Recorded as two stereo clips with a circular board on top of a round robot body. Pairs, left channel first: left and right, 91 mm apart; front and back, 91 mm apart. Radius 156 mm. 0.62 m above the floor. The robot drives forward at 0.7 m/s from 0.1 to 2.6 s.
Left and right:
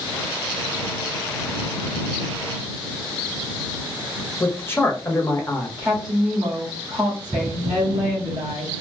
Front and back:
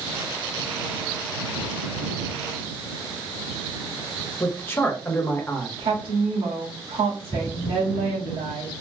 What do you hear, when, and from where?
4.4 s a man speaking: 50° left, 1.3 m
5.8 s a woman speaking: 175° right, 2 m